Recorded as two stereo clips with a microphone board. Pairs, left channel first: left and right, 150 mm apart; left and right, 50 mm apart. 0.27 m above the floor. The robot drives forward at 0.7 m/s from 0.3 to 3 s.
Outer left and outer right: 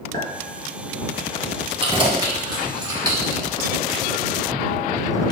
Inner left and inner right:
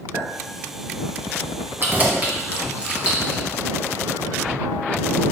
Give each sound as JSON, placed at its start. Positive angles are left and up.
{"t": 0.1, "sound": "a clink", "side_deg": -70, "distance_m": 2.5}
{"t": 1.8, "sound": "keys jangling", "side_deg": -35, "distance_m": 1.4}